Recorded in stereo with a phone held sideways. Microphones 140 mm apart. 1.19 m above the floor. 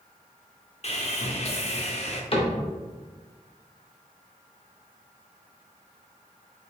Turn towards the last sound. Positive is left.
turn(degrees=40)  # may be behind; listen again after turning